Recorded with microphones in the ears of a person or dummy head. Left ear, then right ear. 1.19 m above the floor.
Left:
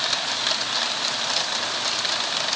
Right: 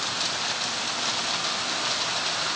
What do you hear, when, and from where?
Only background noise.